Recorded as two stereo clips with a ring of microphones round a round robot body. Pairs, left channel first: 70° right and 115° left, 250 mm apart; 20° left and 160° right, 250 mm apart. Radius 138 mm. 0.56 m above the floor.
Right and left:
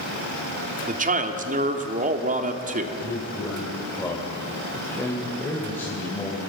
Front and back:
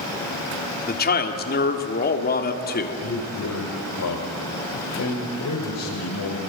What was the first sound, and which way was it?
A man speaking, 65° left.